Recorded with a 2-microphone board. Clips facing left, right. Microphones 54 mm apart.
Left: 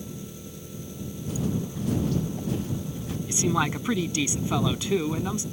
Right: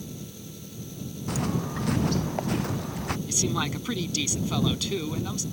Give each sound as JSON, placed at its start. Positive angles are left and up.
{"t": 0.0, "sound": "an engine running", "side_deg": 20}
{"t": 1.3, "sound": "footsteps", "side_deg": -80}
{"t": 3.3, "sound": "a man speaking", "side_deg": 20}